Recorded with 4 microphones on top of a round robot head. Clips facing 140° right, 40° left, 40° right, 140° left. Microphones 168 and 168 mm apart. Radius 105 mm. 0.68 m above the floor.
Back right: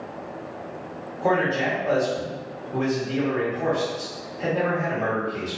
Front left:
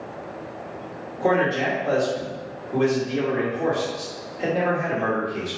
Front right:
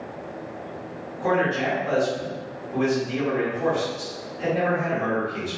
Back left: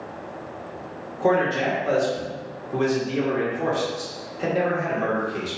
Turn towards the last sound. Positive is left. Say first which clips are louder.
# front left 1 dB, back left 2 dB
turn(degrees=95)